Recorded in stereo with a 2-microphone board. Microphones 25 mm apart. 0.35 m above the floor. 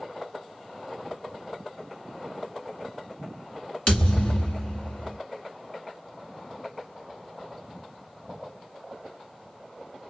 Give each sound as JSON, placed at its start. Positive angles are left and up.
{"t": 3.9, "sound": "a thud", "side_deg": 40, "distance_m": 2.0}